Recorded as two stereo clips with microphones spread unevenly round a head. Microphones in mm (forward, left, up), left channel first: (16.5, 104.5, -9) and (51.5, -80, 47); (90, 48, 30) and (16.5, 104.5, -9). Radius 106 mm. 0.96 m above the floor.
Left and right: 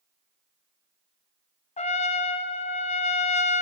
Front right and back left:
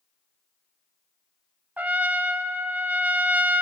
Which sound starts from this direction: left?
A trumpet, at 1.8 s.